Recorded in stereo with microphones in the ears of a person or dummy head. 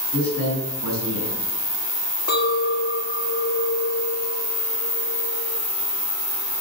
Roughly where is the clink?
Left.